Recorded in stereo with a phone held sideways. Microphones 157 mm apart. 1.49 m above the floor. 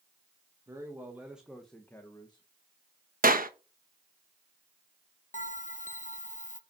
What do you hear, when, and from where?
0.7 s a man speaking: 20° right (ahead or behind), 1.8 m; by 2.5 s 30° left (ahead or behind), 1.3 m
3.2 s a clap: 60° right (ahead or behind), 1.1 m
5.3 s a bell: 50° left (ahead or behind), 0.9 m